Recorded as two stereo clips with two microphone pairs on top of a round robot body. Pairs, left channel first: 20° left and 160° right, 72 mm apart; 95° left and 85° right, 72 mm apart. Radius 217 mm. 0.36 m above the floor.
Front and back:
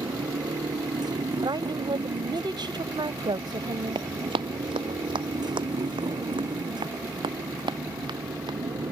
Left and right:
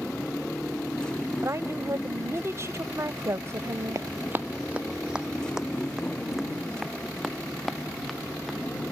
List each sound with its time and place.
0.0 s a motorcycle: 175° left
1.4 s a woman speaking: 135° right
4.0 s running footsteps: 135° right; by 8.6 s straight behind